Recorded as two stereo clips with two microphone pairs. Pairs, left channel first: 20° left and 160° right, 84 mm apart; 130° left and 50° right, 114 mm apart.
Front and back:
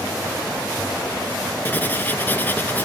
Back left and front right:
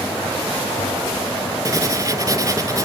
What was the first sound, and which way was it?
Writing, 30° right.